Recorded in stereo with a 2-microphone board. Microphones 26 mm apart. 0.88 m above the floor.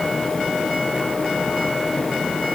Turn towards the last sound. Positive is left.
No sound to turn to.